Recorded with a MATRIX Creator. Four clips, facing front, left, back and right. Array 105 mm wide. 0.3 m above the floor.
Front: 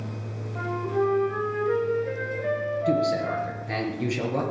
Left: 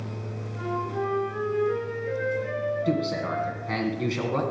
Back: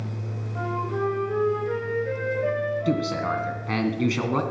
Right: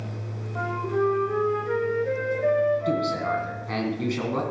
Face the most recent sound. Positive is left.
turn(degrees=180)